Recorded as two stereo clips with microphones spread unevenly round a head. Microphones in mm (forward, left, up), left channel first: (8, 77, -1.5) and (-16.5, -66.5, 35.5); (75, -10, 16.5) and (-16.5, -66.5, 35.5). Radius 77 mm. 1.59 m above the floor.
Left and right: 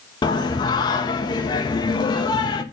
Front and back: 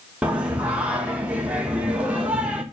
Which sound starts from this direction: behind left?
Singing, at 0.2 s.